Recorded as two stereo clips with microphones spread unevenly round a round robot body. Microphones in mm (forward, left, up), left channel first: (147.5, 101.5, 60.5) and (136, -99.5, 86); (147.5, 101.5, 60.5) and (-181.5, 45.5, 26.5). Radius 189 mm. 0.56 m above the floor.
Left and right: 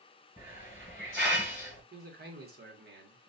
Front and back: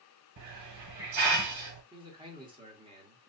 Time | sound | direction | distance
0.4 | a hiss | 175° left | 1.1 m
1.9 | a man speaking | 105° right | 1.1 m